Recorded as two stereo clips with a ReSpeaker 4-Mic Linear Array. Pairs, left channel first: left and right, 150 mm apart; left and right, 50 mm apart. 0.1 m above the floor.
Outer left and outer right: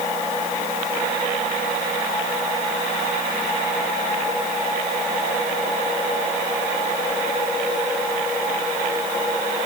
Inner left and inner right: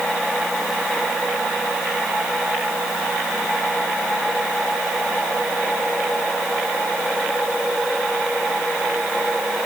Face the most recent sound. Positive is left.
No sound to turn to.